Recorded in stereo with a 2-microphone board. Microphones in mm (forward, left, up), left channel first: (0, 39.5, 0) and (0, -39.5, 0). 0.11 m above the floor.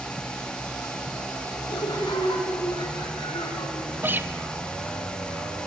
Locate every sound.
1.7 s laughter: 75° left (ahead or behind), 6 m
4.0 s a guitar: 25° right (ahead or behind), 1.1 m